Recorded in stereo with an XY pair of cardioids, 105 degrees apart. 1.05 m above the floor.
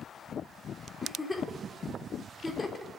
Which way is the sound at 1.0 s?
15° left.